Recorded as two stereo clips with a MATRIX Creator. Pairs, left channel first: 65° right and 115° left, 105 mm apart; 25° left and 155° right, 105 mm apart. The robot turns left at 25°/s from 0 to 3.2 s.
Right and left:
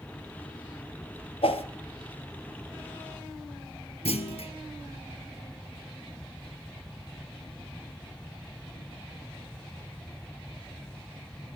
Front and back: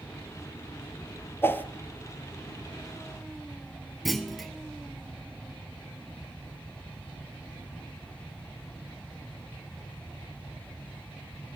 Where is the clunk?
65° right, 0.9 m.